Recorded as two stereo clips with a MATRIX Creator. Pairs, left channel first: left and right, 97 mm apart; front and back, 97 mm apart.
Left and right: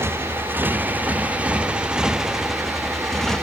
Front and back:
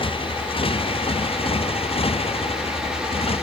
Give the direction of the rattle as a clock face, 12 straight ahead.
I don't hear a rattle.